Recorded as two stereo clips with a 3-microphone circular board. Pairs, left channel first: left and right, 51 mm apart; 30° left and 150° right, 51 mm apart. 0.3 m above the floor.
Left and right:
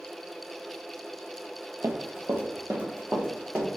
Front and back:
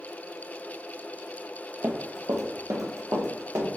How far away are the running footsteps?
About 0.5 m.